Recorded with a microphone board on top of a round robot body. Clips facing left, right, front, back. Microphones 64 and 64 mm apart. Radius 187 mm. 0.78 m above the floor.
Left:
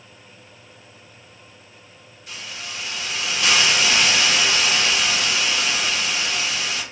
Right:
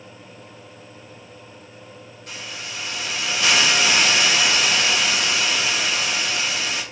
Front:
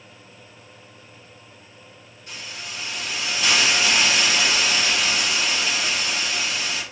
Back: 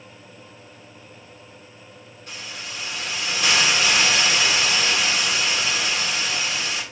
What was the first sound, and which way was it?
A hiss, 135° right.